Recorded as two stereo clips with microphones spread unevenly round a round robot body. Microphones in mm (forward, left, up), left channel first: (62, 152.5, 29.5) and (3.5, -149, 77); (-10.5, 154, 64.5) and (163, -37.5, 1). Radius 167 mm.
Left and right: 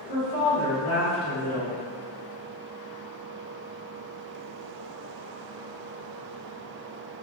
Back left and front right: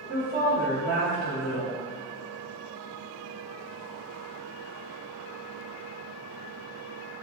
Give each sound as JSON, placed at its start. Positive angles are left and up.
{"t": 0.1, "sound": "a woman speaking", "azimuth_deg": -95, "distance_m": 1.9}